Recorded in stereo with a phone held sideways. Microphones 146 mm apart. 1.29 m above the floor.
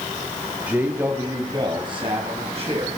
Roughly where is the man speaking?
Centre.